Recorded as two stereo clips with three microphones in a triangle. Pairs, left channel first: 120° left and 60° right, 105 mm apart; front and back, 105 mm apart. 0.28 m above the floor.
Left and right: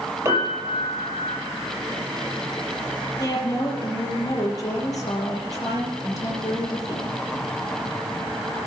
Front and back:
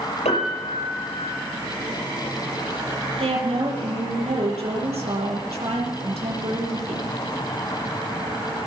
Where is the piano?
Straight ahead, 6.5 m.